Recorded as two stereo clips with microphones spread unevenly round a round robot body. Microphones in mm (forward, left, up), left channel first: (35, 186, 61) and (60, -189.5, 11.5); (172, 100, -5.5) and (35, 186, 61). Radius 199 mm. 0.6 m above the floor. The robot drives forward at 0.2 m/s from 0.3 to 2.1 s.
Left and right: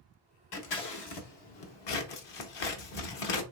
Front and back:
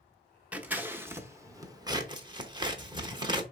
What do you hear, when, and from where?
0.5 s scissors: 60° left, 1.2 m; by 3.4 s 75° left, 1.1 m